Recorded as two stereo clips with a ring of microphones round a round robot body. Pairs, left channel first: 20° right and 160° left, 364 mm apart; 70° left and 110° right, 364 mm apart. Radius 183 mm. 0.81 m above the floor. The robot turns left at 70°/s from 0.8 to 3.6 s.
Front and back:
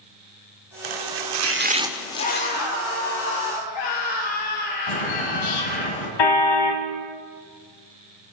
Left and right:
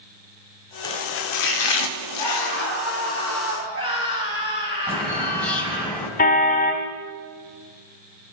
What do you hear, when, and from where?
0.8 s chopping: 150° left, 1.7 m; by 2.7 s 20° left, 1.7 m
2.2 s a scream: 45° left, 6.5 m; by 5.9 s 55° right, 6.5 m
4.9 s a bird: 20° right, 5.5 m
6.2 s a car horn: straight ahead, 2.5 m